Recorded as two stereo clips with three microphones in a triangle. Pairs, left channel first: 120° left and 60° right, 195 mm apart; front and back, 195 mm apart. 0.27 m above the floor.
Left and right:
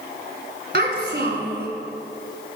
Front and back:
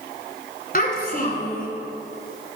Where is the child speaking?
40° right, 1.5 m.